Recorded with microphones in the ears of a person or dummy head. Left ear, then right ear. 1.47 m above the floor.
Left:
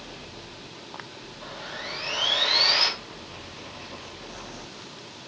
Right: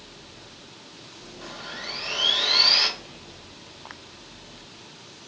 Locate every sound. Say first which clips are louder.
1.4 s sawing: right 1 dB; 15° right (ahead or behind), 1.0 m